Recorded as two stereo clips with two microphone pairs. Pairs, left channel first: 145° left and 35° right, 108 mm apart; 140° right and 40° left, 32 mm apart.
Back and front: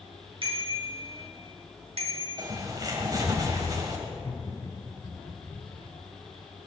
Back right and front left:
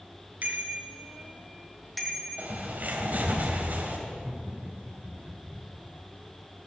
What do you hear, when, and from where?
0.4 s a bicycle bell: straight ahead, 3 m; by 2.5 s 75° right, 2.5 m
2.4 s a bird: 15° left, 2.5 m
4.1 s laughter: 95° left, 1.6 m